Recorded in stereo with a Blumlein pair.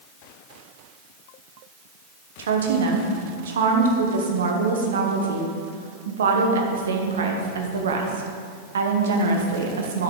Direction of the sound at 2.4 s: 65° right.